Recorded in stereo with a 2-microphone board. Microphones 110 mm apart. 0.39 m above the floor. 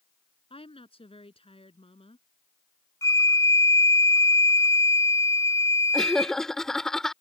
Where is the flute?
30° left (ahead or behind).